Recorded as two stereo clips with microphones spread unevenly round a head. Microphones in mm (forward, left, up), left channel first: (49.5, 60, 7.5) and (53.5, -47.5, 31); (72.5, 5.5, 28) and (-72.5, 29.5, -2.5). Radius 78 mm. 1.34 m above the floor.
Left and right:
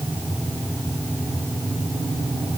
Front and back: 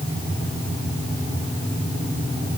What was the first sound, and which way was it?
Only background noise.